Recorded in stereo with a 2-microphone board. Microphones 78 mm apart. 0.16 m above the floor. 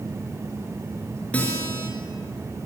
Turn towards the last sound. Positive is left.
turn(degrees=20)  # may be behind; listen again after turning